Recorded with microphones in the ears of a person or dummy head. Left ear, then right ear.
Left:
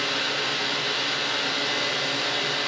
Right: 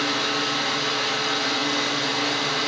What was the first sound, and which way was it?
A fan, 65° right (ahead or behind).